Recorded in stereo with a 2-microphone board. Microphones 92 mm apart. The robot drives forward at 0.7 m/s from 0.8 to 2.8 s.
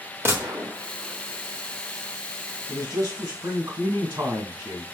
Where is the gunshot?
25° right (ahead or behind), 1.0 m.